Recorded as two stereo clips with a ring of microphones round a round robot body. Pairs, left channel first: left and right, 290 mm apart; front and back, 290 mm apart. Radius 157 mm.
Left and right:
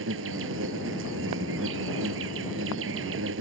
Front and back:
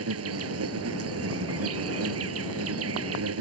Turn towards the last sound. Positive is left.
turn(degrees=-145)